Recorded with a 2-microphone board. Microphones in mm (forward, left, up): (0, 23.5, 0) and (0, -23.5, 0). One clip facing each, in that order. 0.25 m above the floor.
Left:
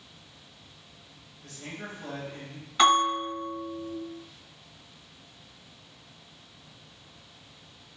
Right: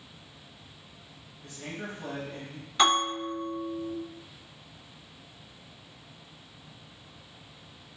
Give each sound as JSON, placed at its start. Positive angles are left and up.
{"t": 1.4, "sound": "a man speaking", "side_deg": -15, "distance_m": 1.0}
{"t": 2.8, "sound": "a bell", "side_deg": 10, "distance_m": 1.9}